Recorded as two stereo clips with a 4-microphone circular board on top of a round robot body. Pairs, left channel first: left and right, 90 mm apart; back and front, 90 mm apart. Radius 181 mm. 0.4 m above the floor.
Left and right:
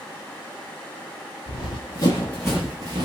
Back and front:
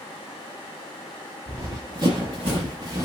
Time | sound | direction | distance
1.5 | running footsteps | 55° left | 1.0 m